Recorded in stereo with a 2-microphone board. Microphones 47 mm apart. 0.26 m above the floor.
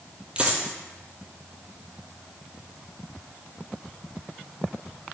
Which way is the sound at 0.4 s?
20° right (ahead or behind).